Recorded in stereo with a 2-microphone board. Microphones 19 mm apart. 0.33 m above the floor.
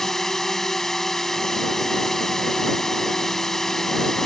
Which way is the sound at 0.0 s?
20° left (ahead or behind).